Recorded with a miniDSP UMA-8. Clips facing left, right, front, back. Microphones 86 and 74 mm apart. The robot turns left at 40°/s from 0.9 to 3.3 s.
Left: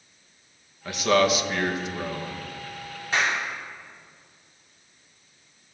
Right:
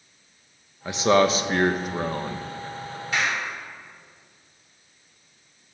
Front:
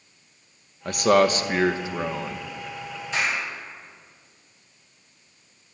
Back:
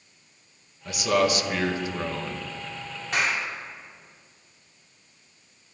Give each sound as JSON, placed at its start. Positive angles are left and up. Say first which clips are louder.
{"t": 0.8, "sound": "a man speaking", "louder": "right 2 dB, front 4 dB", "azimuth_deg": -25, "distance_m": 0.7}
{"t": 3.1, "sound": "a clap", "louder": "left 1 dB, even", "azimuth_deg": 150, "distance_m": 2.5}